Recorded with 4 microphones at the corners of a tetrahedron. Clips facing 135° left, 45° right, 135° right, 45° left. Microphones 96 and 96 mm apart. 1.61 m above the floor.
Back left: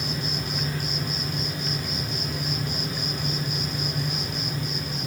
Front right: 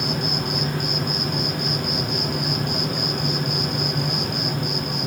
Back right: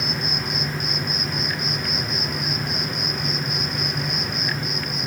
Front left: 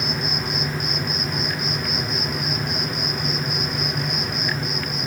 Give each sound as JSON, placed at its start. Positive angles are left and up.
{"t": 0.0, "sound": "an insect", "azimuth_deg": -45, "distance_m": 1.6}